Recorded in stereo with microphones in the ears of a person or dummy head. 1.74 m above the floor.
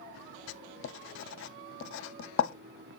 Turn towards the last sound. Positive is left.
turn(degrees=75)  # may be behind; listen again after turning